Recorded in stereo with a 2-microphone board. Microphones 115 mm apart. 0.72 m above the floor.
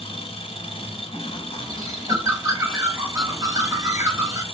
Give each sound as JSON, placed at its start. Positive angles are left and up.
{"t": 0.0, "sound": "an engine running", "side_deg": 55, "distance_m": 0.9}
{"t": 1.6, "sound": "a bird", "side_deg": -30, "distance_m": 1.0}